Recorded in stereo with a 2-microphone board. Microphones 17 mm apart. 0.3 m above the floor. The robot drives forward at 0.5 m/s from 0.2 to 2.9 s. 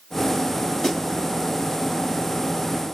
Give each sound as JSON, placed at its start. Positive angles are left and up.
{"t": 0.8, "sound": "a snare drum", "side_deg": 30, "distance_m": 4.5}